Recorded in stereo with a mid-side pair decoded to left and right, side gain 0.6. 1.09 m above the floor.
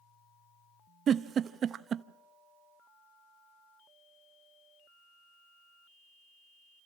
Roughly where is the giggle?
Ahead right.